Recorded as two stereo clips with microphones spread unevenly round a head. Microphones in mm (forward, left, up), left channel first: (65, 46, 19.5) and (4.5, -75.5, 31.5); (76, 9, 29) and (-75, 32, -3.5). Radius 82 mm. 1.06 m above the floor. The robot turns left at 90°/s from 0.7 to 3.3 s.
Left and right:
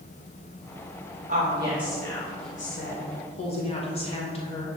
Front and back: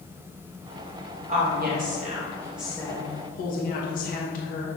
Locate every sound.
1.3 s a woman speaking: 150° right, 1.3 m; by 4.7 s 30° left, 1.3 m